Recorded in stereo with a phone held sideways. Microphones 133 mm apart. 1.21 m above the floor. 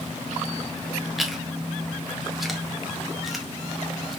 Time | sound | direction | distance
1.2 | chewing | centre (ahead or behind) | 0.9 m